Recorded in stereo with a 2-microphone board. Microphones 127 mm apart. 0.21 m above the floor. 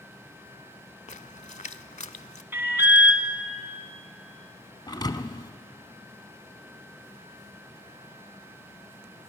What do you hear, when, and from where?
1.1 s a splash: 65° left (ahead or behind), 0.5 m
2.5 s an alarm: 15° right (ahead or behind), 1.3 m
4.9 s a thud: 35° left (ahead or behind), 0.7 m